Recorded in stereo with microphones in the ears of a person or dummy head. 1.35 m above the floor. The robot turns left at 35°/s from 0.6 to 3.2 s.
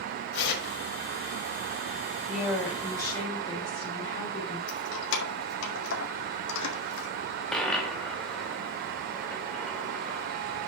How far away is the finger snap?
I don't hear a finger snap.